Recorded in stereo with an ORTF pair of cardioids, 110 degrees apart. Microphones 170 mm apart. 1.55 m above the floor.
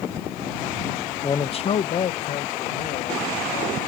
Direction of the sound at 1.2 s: 25° left.